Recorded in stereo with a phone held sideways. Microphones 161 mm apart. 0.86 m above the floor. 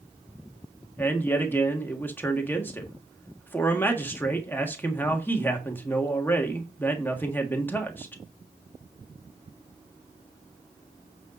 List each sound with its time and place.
1.0 s a man speaking: 10° left (ahead or behind), 1.5 m